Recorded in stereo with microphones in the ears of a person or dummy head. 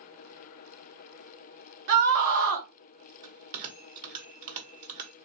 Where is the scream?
50° right (ahead or behind), 1.3 m.